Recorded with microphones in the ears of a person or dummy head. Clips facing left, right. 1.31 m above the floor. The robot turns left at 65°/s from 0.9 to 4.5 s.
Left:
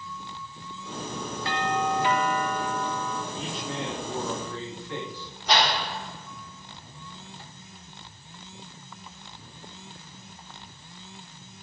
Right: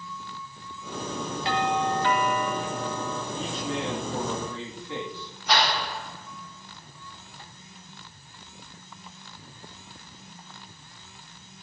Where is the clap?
15° left (ahead or behind), 0.8 m.